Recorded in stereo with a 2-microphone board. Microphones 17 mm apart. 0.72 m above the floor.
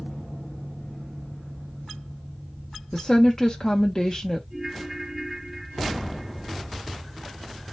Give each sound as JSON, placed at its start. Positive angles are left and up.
{"t": 2.9, "sound": "a woman speaking", "side_deg": 30, "distance_m": 0.7}
{"t": 4.5, "sound": "a ringtone", "side_deg": -20, "distance_m": 3.0}